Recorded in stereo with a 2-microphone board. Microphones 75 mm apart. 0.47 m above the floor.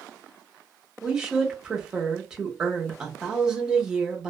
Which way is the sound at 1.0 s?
10° right (ahead or behind).